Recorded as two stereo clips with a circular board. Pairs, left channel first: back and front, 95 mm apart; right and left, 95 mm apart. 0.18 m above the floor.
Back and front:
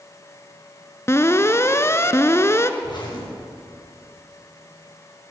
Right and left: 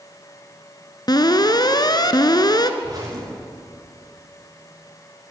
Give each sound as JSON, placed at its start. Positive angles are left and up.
{"t": 1.1, "sound": "an alarm", "azimuth_deg": -125, "distance_m": 1.4}
{"t": 2.8, "sound": "a zipper", "azimuth_deg": 140, "distance_m": 8.5}